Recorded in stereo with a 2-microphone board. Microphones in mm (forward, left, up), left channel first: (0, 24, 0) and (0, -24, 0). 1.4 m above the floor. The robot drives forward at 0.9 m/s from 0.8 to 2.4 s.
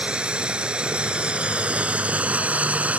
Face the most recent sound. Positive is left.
turn(degrees=-30)  # may be behind; listen again after turning